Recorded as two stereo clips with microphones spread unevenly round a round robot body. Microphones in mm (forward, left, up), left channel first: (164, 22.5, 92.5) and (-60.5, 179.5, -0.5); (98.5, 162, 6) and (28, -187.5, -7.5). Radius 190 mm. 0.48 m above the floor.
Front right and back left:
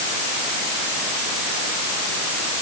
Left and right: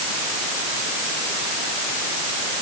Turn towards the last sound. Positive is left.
No sound to turn to.